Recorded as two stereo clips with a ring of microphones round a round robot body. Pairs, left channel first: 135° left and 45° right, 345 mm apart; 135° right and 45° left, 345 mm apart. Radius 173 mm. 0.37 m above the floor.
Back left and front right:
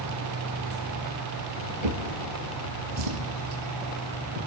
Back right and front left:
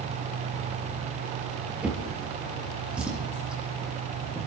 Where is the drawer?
40° right, 4 m.